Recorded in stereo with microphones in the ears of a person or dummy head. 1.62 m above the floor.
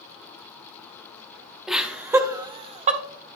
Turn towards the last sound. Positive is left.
turn(degrees=-45)  # may be behind; listen again after turning